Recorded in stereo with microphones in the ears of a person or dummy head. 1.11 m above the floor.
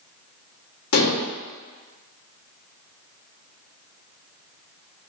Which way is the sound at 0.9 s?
80° left.